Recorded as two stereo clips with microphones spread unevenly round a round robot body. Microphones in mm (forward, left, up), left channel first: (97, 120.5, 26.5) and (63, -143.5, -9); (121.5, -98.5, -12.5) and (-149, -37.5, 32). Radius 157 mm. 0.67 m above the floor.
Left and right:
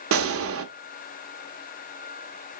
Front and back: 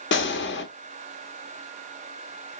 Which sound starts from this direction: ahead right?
A gunshot, at 0.1 s.